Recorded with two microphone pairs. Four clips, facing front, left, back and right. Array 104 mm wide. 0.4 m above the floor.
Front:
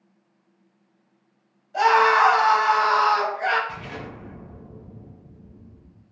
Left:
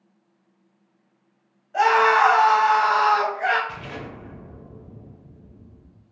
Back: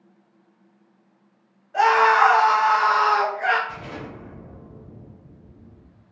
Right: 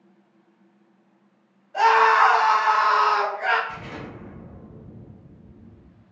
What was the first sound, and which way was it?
A scream, 165° left.